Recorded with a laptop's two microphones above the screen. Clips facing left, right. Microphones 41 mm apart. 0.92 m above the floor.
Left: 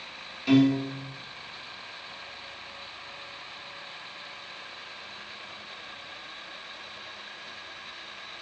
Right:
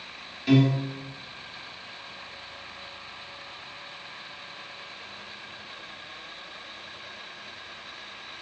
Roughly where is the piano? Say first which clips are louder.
Left 1 dB; centre.